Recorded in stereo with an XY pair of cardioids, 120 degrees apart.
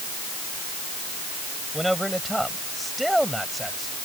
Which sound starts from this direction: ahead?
A man speaking, at 1.7 s.